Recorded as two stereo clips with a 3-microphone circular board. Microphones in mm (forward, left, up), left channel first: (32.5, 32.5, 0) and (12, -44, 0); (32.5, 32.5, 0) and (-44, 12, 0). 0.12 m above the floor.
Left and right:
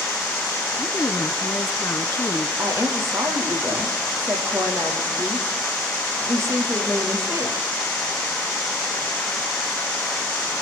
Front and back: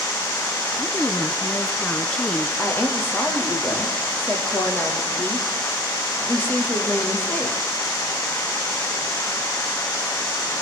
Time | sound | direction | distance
0.8 | a woman speaking | 80° left | 1.4 m
2.6 | a woman speaking | 50° right | 5 m